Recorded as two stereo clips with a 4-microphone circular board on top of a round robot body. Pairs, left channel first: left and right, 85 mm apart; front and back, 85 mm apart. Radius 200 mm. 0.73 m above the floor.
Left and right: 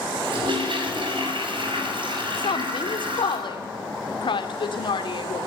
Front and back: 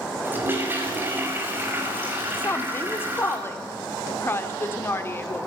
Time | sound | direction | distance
0.2 | a toilet flushing | 115° right | 5.5 m
2.4 | a woman speaking | 65° left | 2.5 m